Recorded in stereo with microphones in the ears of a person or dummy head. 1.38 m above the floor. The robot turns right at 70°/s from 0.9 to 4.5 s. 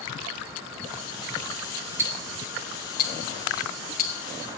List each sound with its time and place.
2.0 s ticking: 15° right (ahead or behind), 1.0 m; by 4.1 s 40° left (ahead or behind), 1.0 m